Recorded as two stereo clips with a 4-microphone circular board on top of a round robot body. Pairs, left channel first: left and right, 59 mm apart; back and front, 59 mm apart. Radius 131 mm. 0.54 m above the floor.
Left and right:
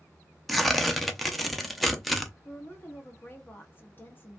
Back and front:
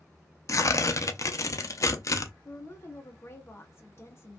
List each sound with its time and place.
0.5 s tearing paper: straight behind, 0.7 m
2.5 s a woman speaking: 140° left, 1.0 m